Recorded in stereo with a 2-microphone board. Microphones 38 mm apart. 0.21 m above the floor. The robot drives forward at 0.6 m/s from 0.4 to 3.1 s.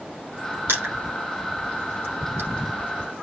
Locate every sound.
0.7 s crushing: 80° right, 7 m